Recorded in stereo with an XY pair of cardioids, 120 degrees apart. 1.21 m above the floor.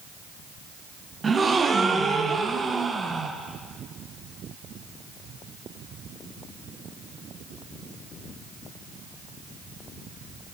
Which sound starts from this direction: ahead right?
A gasp, at 1.2 s.